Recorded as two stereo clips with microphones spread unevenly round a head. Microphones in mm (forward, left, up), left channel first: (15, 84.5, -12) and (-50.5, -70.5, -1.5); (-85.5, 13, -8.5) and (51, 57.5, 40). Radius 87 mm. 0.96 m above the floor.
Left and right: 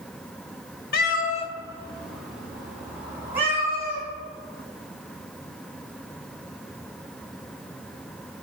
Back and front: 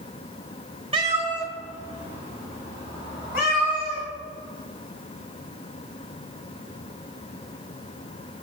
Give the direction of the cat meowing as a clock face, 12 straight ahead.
11 o'clock.